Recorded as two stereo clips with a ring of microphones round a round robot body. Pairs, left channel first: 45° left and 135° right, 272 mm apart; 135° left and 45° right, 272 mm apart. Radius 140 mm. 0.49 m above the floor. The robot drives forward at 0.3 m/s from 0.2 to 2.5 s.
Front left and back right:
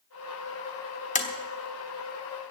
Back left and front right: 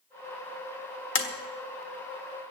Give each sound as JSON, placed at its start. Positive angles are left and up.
{"t": 1.1, "sound": "tapping", "azimuth_deg": 105, "distance_m": 1.4}